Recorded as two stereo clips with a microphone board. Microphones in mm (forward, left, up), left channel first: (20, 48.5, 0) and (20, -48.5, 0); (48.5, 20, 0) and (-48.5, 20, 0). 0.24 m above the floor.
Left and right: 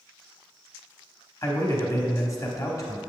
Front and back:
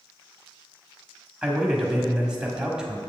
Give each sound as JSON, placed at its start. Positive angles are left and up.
{"t": 1.4, "sound": "a man speaking", "azimuth_deg": 105, "distance_m": 1.1}